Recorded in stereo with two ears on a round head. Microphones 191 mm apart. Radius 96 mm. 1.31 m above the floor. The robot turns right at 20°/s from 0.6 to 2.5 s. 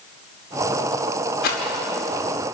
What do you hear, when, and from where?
1.4 s a rattle: 60° left (ahead or behind), 4.5 m; by 1.6 s 55° left (ahead or behind), 4.5 m